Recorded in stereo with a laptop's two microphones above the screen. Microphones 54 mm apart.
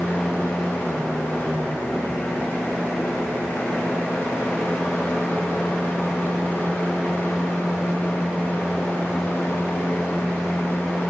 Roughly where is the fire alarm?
I don't hear a fire alarm.